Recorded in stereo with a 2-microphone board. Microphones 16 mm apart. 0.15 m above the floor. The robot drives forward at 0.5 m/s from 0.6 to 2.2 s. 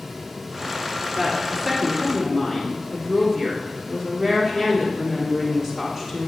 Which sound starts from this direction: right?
A woman speaking, at 1.1 s.